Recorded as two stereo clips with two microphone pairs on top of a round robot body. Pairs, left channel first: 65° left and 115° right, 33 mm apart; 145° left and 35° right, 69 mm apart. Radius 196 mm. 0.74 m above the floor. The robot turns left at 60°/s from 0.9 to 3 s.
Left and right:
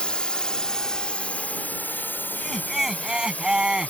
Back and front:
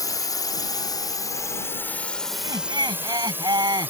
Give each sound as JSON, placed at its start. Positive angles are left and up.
{"t": 0.0, "sound": "a drone", "azimuth_deg": 125}
{"t": 2.3, "sound": "laughter", "azimuth_deg": -5}